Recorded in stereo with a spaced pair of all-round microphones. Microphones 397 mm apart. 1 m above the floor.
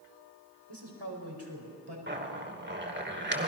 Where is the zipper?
25° right (ahead or behind), 2 m.